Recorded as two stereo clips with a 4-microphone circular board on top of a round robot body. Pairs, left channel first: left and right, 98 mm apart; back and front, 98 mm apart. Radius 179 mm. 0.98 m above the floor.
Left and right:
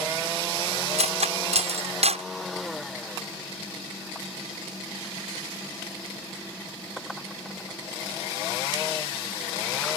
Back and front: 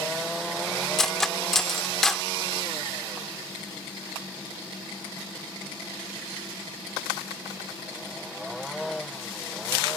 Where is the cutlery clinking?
95° right.